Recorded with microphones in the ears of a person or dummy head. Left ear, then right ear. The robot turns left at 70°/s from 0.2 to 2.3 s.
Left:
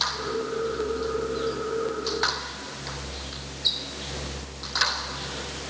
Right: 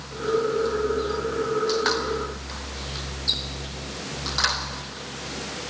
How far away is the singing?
I don't hear singing.